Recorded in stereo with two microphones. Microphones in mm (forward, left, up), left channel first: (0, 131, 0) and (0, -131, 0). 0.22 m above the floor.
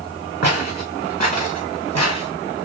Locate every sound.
0.4 s footsteps: 85° right, 2 m; by 2.3 s 75° right (ahead or behind), 2.5 m